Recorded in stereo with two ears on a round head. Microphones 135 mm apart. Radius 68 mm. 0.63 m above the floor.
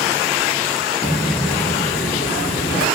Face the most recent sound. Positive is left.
turn(degrees=65)  # may be behind; listen again after turning